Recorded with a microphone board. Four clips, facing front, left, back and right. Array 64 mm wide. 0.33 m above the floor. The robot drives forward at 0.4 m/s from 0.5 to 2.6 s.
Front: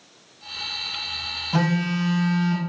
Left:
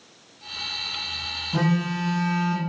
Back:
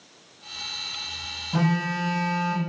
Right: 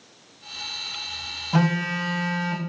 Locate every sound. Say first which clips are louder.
1.5 s a phone buzzing: right 1 dB, front 2 dB; 65° right, 2 m; by 2.6 s 75° right, 2 m